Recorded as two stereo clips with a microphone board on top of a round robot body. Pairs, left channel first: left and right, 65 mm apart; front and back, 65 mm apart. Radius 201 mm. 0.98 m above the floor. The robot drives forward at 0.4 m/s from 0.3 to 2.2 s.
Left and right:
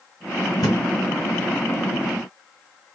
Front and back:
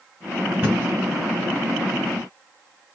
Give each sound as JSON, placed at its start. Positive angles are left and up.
{"t": 0.6, "sound": "a thud", "azimuth_deg": 115, "distance_m": 1.4}